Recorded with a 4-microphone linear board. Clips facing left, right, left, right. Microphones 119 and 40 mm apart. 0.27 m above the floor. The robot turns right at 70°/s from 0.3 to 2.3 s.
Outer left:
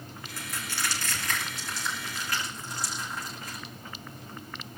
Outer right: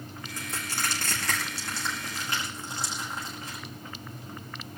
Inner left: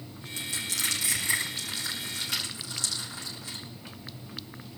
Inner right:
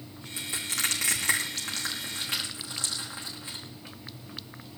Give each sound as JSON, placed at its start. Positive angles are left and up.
{"t": 0.4, "sound": "crushing", "side_deg": -15, "distance_m": 6.0}